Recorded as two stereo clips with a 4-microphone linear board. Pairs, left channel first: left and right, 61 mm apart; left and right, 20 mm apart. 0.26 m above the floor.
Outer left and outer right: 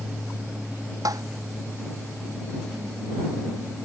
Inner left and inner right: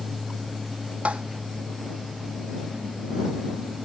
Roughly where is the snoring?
I don't hear snoring.